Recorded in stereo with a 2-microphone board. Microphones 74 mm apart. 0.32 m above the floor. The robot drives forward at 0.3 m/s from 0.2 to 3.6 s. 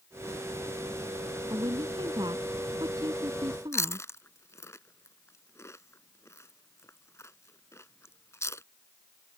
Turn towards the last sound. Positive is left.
turn(degrees=40)  # may be behind; listen again after turning